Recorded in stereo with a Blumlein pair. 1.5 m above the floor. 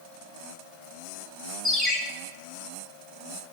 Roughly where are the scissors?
No scissors in this recording.